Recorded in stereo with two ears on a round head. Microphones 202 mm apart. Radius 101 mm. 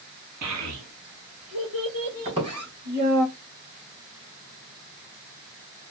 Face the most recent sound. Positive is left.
turn(degrees=-25)  # may be behind; listen again after turning